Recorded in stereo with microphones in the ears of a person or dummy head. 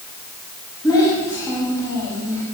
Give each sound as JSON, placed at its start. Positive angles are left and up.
{"t": 0.8, "sound": "a child speaking", "side_deg": 20, "distance_m": 6.0}